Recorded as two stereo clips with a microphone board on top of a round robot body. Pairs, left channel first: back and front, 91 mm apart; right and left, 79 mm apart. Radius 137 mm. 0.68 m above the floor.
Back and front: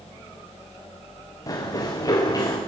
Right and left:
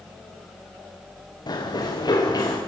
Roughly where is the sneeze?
I don't hear a sneeze.